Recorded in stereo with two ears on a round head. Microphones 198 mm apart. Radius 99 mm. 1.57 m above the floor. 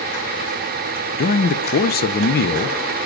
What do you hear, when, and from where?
1.2 s a man speaking: 40° left (ahead or behind), 0.6 m